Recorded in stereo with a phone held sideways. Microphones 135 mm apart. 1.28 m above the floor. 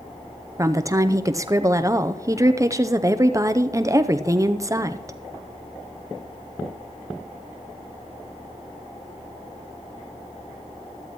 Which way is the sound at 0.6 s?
25° right (ahead or behind).